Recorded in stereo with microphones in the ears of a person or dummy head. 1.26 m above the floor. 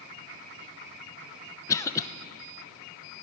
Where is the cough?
10° left (ahead or behind), 0.8 m.